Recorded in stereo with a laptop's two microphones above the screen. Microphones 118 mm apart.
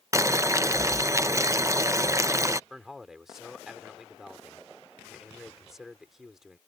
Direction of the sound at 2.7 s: 5° right (ahead or behind).